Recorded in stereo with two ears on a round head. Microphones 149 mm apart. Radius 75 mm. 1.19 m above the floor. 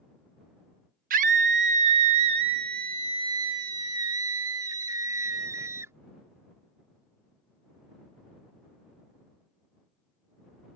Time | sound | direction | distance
1.1 | a scream | 50° right (ahead or behind) | ?